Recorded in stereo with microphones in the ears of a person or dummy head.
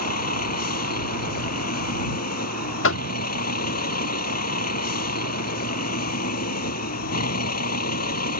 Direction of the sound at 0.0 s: 55° left (ahead or behind).